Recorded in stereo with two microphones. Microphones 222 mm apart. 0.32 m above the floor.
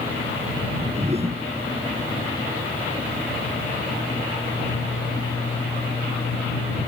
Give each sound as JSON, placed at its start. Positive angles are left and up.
{"t": 0.6, "sound": "a whoosh", "side_deg": -30}